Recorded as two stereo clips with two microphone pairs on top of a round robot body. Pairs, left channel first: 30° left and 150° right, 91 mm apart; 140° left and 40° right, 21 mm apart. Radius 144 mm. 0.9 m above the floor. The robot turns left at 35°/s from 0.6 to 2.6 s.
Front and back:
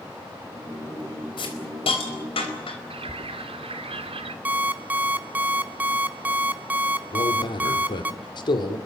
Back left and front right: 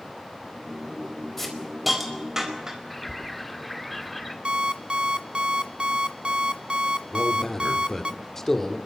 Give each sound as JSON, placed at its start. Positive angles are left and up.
{"t": 1.4, "sound": "a hiss", "azimuth_deg": 55, "distance_m": 4.5}
{"t": 2.9, "sound": "a bird", "azimuth_deg": -140, "distance_m": 1.6}
{"t": 4.5, "sound": "an alarm clock", "azimuth_deg": -80, "distance_m": 0.8}
{"t": 7.1, "sound": "a man speaking", "azimuth_deg": 65, "distance_m": 2.5}